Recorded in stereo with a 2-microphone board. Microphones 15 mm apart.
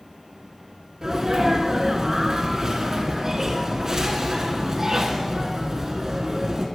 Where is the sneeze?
30° right (ahead or behind), 1.5 m.